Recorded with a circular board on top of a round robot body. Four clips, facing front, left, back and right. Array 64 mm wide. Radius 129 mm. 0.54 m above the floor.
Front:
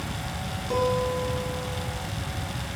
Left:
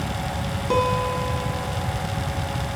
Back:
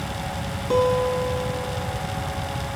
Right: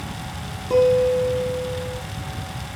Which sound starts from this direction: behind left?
A guitar, at 0.7 s.